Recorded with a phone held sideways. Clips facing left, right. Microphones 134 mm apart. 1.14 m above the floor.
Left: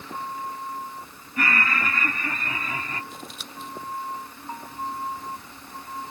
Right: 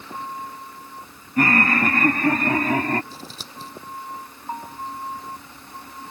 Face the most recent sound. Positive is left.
turn(degrees=-30)  # may be behind; listen again after turning